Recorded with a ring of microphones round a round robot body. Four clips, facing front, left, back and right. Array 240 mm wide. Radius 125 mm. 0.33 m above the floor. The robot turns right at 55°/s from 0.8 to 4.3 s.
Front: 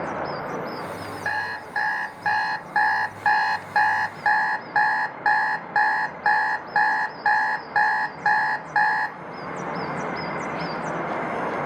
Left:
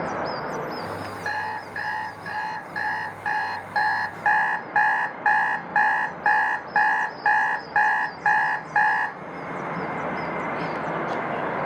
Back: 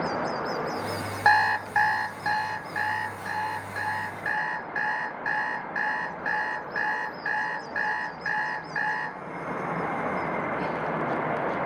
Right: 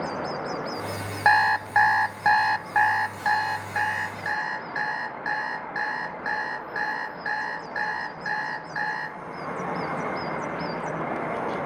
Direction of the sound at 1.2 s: 125° right.